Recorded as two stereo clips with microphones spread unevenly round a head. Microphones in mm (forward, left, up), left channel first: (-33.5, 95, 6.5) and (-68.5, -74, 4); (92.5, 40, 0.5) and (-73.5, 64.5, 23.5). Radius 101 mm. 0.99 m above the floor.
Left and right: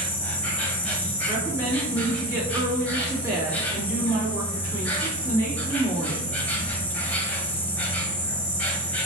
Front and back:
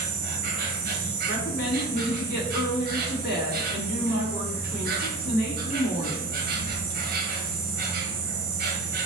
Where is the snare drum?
No snare drum in this recording.